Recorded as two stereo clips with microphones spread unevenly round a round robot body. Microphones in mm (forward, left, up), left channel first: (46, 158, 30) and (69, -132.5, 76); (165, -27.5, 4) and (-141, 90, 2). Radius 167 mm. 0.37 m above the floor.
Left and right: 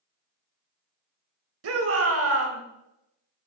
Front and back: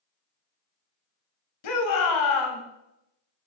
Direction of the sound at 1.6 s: 50° right.